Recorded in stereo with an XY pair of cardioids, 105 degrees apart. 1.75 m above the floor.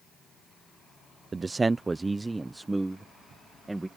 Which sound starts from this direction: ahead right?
A man speaking, at 1.3 s.